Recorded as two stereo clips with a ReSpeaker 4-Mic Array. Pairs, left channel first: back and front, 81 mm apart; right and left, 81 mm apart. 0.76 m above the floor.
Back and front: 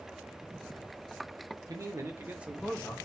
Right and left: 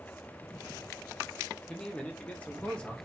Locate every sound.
1.7 s a man speaking: 15° right, 0.9 m; by 3.0 s 155° right, 0.6 m